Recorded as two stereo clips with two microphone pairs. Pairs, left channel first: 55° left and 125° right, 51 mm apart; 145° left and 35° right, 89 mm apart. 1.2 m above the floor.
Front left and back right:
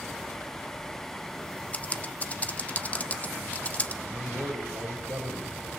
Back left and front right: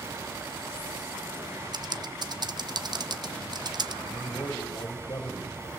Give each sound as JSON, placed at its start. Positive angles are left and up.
{"t": 1.7, "sound": "typing on a keyboard", "azimuth_deg": -5, "distance_m": 0.9}
{"t": 4.0, "sound": "a man speaking", "azimuth_deg": -160, "distance_m": 4.5}